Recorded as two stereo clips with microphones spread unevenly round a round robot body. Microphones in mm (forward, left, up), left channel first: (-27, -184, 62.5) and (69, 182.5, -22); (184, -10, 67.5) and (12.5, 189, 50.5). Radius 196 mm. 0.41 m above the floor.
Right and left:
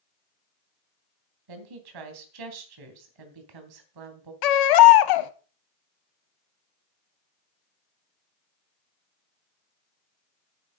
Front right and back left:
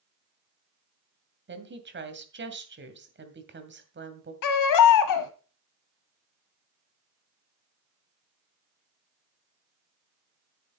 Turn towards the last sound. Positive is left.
turn(degrees=-70)